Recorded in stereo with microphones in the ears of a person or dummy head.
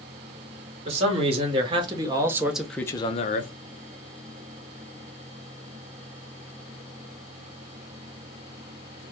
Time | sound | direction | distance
0.8 | a man speaking | 35° right (ahead or behind) | 1.8 m